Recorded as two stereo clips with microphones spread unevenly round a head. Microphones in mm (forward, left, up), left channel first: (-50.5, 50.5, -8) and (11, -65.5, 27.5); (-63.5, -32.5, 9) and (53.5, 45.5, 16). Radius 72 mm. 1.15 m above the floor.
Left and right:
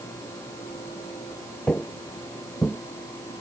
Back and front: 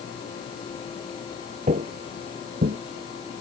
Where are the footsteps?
20° left; by 2.8 s 25° left.